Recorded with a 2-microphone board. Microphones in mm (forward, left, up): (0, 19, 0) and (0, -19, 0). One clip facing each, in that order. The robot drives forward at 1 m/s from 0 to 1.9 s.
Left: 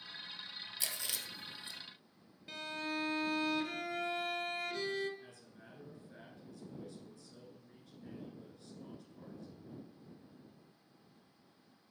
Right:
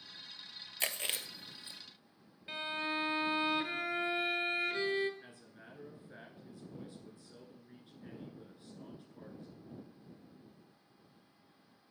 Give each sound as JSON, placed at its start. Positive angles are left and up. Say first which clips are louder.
{"t": 0.8, "sound": "chewing", "louder": "right 6 dB", "side_deg": -55, "distance_m": 0.6}
{"t": 2.5, "sound": "a violin", "louder": "right 3 dB", "side_deg": -25, "distance_m": 0.8}
{"t": 5.2, "sound": "a man speaking", "louder": "right 1 dB", "side_deg": -25, "distance_m": 1.8}